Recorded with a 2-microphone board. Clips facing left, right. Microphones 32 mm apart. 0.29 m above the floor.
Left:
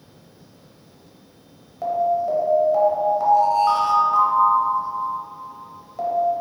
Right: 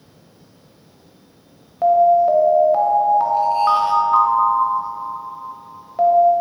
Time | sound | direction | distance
1.8 | an alarm | 35° right (ahead or behind) | 0.6 m